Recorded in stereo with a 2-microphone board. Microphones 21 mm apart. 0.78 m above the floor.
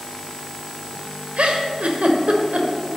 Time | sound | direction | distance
1.4 | a giggle | 70° right (ahead or behind) | 1.3 m